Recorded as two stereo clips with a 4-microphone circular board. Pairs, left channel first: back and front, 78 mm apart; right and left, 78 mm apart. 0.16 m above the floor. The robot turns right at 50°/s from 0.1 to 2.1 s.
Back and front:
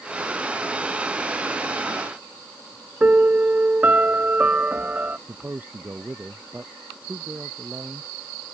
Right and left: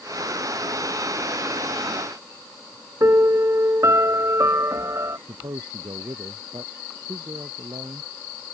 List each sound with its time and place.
3.0 s a piano: 60° left
5.3 s a man speaking: 65° left